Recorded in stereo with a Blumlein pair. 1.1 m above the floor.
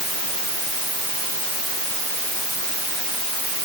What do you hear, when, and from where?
Only background noise.